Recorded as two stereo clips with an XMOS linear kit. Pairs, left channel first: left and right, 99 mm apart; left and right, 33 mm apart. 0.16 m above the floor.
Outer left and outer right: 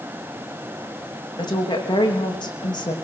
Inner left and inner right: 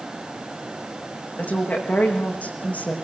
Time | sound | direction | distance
1.4 | a woman speaking | 45° left (ahead or behind) | 7 m